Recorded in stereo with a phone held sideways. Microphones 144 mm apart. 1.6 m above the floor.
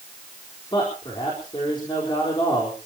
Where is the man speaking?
35° left (ahead or behind), 4.5 m.